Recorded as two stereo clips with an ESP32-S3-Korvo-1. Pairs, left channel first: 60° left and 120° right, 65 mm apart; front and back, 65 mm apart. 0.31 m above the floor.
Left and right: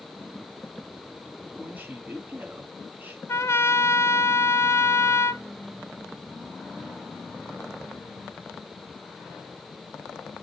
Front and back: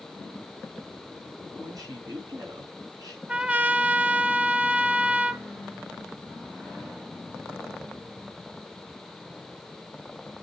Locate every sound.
1.6 s a man speaking: straight behind, 4 m
3.3 s a trumpet: 110° left, 0.7 m